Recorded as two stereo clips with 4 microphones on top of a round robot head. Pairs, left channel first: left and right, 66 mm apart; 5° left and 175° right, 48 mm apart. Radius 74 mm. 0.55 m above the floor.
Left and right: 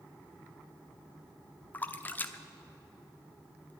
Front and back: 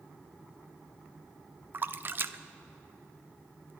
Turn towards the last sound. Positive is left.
turn(degrees=150)